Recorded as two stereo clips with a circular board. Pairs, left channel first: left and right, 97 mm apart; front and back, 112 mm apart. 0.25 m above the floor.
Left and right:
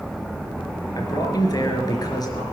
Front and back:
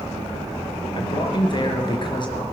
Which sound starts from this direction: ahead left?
A man speaking, at 0.9 s.